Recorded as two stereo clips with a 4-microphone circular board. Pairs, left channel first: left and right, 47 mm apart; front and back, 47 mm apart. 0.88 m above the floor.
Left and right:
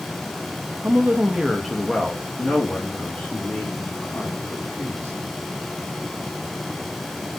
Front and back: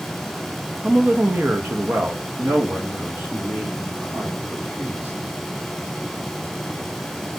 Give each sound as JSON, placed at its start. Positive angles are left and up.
{"t": 0.8, "sound": "a woman speaking", "azimuth_deg": -125, "distance_m": 0.7}